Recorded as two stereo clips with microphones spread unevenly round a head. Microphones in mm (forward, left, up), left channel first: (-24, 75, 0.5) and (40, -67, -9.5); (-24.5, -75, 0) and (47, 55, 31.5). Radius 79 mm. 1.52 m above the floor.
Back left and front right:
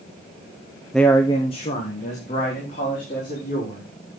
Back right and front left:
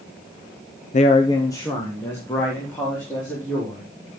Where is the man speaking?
155° right, 0.6 m; by 4.1 s 160° left, 5.5 m.